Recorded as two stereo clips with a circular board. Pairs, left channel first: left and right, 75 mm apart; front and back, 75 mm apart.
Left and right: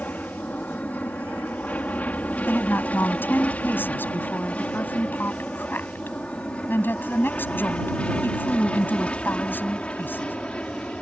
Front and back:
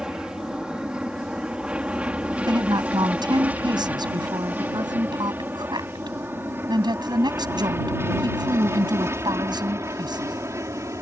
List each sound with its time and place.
0.0 s an aircraft: 110° left; by 11.0 s 160° left
2.5 s a woman speaking: 155° left